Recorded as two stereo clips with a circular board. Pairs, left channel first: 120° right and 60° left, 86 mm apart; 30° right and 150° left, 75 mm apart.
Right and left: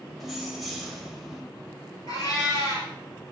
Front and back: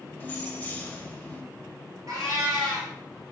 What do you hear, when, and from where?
0.2 s keys jangling: 30° right, 0.6 m
2.1 s a cat meowing: 165° right, 1.8 m